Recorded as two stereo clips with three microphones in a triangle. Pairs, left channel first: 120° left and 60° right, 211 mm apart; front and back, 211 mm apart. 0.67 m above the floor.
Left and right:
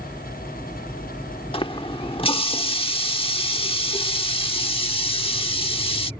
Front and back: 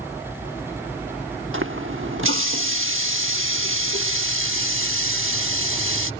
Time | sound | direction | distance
1.5 | a running tap | straight behind | ?